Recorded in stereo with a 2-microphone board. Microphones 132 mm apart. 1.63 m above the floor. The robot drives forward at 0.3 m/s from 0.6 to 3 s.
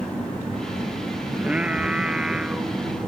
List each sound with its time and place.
1.3 s singing: 10° right (ahead or behind); by 3.1 s 5° right (ahead or behind)